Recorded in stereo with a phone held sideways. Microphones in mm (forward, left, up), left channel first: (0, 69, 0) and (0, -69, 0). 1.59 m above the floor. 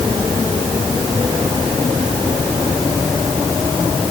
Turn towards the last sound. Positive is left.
No sound to turn to.